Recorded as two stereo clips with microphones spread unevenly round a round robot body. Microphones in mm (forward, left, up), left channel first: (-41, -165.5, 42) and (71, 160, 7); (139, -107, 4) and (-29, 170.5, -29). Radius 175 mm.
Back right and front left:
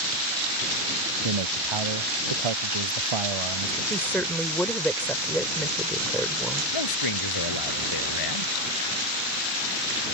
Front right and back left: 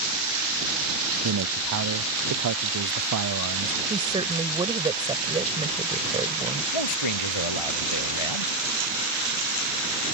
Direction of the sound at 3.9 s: 160° left.